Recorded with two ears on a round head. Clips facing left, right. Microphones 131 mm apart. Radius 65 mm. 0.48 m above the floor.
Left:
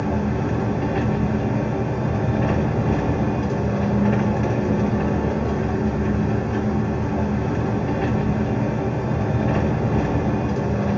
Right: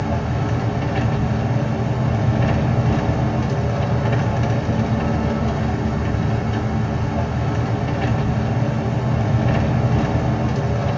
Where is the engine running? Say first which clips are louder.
Left 1 dB; 40° right (ahead or behind), 0.9 m.